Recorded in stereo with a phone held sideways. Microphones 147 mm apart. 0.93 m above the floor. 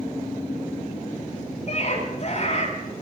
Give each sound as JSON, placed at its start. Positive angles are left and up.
{"t": 1.7, "sound": "a scream", "side_deg": 50, "distance_m": 9.5}